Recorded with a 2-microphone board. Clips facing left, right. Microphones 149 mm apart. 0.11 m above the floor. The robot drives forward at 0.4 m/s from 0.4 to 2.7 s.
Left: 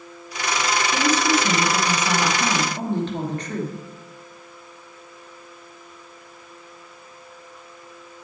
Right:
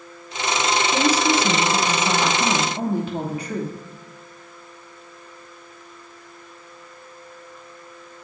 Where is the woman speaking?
10° right (ahead or behind), 1.5 m.